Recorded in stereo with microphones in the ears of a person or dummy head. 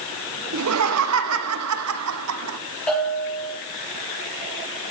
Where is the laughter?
75° right (ahead or behind), 1.3 m.